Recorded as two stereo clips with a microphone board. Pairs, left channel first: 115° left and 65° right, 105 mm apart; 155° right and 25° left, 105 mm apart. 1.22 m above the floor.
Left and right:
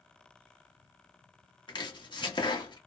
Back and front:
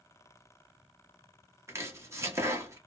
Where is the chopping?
80° left, 0.8 m.